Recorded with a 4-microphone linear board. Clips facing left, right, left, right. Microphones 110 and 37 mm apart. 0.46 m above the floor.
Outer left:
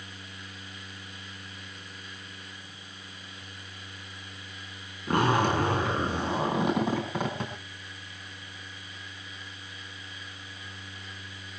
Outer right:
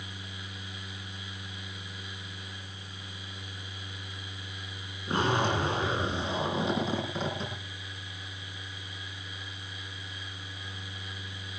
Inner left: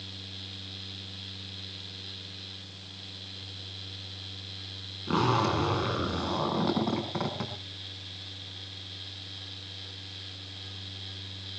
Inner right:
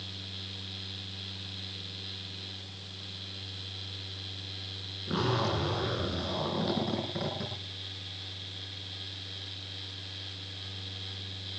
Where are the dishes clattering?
No dishes clattering in this recording.